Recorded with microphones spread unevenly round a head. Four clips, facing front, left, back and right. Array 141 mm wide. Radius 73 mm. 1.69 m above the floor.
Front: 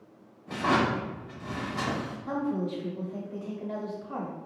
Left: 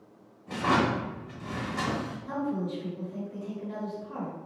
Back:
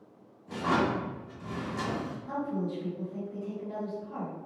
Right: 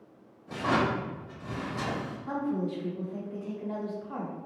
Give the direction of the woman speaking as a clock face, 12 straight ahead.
1 o'clock.